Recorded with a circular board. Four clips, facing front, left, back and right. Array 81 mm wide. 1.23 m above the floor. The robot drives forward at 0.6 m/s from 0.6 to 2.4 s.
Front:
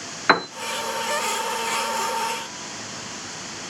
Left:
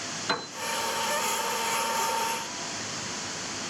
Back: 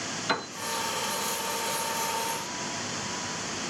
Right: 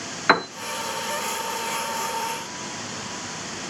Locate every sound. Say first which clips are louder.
0.3 s a piano: right 12 dB, front 11 dB; 40° right, 0.6 m